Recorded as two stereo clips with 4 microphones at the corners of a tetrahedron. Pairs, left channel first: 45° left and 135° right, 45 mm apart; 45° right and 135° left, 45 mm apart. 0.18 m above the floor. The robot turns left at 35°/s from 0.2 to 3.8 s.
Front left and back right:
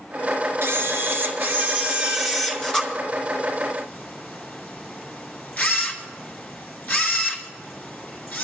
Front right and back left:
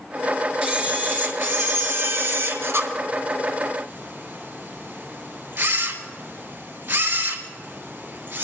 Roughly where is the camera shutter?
Behind.